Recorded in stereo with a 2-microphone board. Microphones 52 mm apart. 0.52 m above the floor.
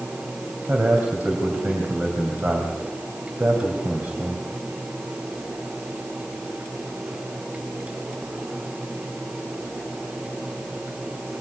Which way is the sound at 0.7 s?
35° right (ahead or behind).